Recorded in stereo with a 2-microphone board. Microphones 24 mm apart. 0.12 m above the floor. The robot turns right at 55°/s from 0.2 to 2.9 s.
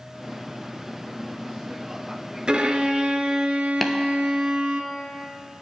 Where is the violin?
45° right (ahead or behind), 0.5 m; by 4.8 s 50° right (ahead or behind), 0.5 m.